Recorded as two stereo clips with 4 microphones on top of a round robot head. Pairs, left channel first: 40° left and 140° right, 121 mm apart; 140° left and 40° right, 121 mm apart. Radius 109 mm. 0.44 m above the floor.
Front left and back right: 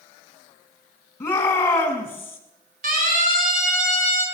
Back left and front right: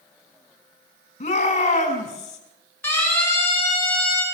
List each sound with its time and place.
1.2 s a shout: 115° left, 7 m
2.8 s a siren: 150° right, 9.5 m; by 4.2 s 140° right, 11 m